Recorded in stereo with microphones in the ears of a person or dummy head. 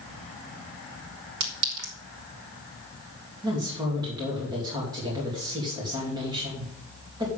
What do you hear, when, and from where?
1.4 s a clink: 65° right (ahead or behind), 3 m
3.4 s a woman speaking: 20° right (ahead or behind), 3 m